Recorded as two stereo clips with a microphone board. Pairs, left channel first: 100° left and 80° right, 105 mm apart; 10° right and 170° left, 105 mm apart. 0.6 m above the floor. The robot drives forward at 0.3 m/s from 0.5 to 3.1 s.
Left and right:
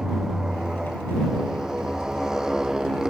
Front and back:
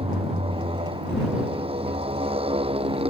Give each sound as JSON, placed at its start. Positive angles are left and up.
{"t": 0.0, "sound": "a motorcycle", "azimuth_deg": -165}